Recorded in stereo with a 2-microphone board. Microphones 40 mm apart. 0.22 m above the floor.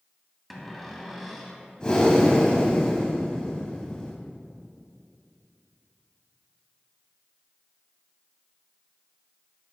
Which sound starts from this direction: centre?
A cupboard door, at 0.5 s.